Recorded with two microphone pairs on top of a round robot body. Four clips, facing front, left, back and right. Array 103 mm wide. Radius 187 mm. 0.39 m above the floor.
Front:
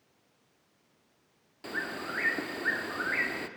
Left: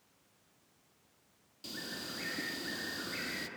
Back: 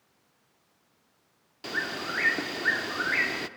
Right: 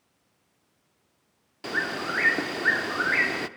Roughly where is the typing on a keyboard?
No typing on a keyboard in this recording.